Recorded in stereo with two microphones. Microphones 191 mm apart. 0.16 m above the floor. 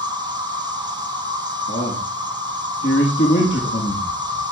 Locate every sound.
0.0 s an insect: 25° right (ahead or behind), 3 m
1.7 s a man speaking: 75° left (ahead or behind), 6 m